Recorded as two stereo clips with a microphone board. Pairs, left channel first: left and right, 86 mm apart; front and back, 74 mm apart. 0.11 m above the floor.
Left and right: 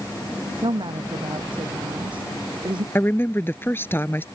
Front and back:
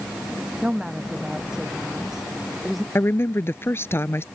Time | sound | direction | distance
0.6 | a woman speaking | 105° right | ?
3.0 | a woman speaking | 40° left | ?